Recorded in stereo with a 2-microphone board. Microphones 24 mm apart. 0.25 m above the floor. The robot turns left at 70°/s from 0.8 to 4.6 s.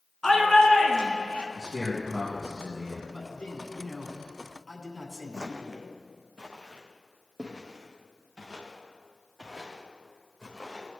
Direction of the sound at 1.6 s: Straight behind.